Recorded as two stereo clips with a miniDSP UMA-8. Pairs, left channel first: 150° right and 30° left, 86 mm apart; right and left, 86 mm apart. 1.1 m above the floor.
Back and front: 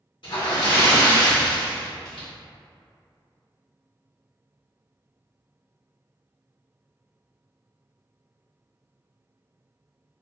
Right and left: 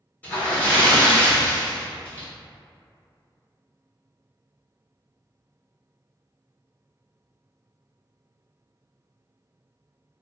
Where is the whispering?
I don't hear whispering.